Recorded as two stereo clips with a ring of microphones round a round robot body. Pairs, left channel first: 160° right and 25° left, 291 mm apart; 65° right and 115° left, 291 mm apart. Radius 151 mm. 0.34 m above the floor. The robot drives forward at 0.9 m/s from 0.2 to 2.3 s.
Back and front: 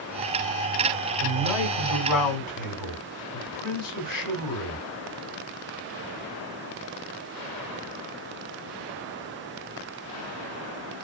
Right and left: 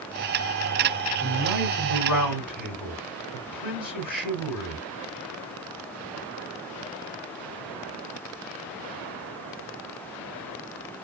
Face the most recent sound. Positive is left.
turn(degrees=-160)